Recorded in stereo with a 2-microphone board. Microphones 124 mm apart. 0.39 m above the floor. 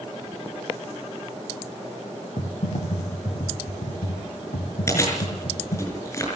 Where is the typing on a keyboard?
85° left, 3 m.